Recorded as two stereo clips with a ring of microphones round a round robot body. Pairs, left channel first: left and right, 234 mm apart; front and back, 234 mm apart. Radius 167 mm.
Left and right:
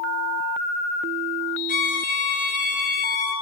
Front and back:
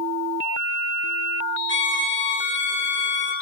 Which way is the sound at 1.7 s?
35° left.